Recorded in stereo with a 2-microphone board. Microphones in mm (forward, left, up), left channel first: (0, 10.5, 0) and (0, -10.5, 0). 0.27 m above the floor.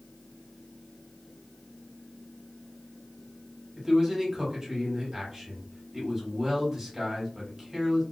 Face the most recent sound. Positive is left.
turn(degrees=-20)  # may be behind; listen again after turning